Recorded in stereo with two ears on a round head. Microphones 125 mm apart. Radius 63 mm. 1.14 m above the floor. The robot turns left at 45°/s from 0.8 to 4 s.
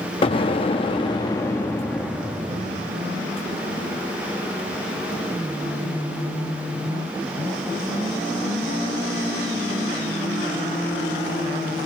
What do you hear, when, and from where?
0.2 s an explosion: 60° left, 0.6 m; by 3.0 s 35° right, 0.6 m